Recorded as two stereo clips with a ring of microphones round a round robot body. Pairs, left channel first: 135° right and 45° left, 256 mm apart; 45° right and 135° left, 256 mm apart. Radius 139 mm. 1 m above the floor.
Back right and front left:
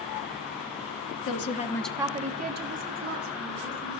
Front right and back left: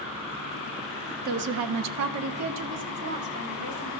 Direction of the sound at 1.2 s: 170° right.